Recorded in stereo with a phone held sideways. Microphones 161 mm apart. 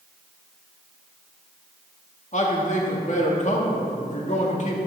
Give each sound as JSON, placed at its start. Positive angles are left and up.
{"t": 2.3, "sound": "a man speaking", "side_deg": 50, "distance_m": 2.0}